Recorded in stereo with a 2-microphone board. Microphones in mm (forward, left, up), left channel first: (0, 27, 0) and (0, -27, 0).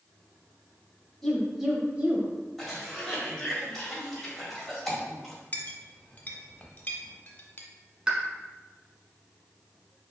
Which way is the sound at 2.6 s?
5° left (ahead or behind).